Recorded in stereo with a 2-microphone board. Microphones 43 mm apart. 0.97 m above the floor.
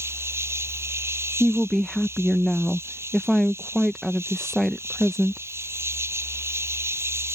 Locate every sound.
0.0 s an insect: 80° right
1.4 s a woman speaking: centre (ahead or behind)